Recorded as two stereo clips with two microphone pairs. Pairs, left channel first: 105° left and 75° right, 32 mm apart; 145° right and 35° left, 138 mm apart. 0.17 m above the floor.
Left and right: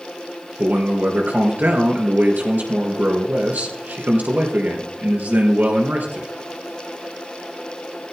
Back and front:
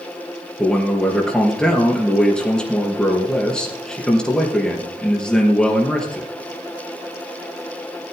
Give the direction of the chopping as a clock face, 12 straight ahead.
I don't hear chopping.